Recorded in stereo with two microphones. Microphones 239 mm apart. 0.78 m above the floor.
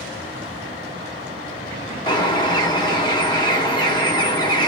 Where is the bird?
20° left (ahead or behind), 1.1 m.